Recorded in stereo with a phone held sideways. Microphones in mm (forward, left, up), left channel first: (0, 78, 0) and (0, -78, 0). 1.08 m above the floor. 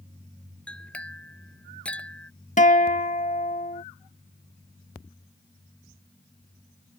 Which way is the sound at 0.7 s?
10° left (ahead or behind).